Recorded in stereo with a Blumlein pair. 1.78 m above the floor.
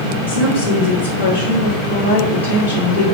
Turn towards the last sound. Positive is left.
turn(degrees=65)